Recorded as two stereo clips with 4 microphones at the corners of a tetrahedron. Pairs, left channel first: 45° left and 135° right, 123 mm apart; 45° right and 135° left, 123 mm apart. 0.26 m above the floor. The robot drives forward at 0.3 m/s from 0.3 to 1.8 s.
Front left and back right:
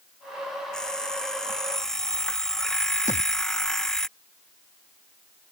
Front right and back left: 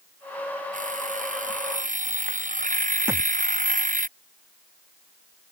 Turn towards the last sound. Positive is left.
turn(degrees=65)